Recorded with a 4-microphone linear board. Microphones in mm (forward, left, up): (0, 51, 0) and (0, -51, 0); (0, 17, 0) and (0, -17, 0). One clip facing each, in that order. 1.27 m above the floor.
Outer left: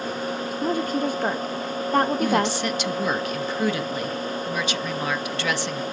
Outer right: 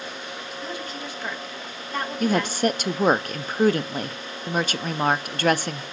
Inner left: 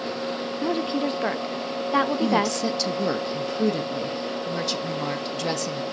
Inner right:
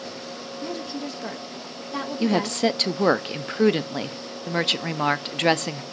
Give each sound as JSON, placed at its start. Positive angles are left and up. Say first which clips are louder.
{"t": 0.6, "sound": "a woman speaking", "louder": "outer left 12 dB, inner left 7 dB", "side_deg": 45, "distance_m": 0.5}
{"t": 2.2, "sound": "a woman speaking", "louder": "even, even", "side_deg": -50, "distance_m": 0.6}